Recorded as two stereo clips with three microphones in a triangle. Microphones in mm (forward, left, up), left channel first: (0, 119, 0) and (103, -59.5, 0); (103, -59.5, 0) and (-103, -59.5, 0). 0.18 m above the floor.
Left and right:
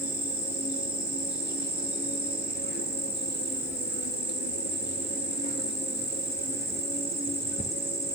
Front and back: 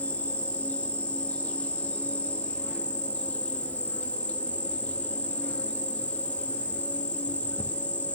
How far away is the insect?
About 0.7 m.